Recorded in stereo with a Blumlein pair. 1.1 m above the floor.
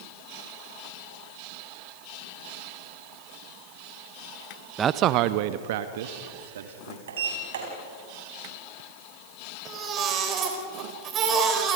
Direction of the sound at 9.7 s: 30° right.